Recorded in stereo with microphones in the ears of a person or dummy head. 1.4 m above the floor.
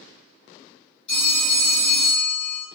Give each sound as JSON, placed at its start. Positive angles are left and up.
{"t": 1.1, "sound": "a phone ringing", "side_deg": 40, "distance_m": 1.4}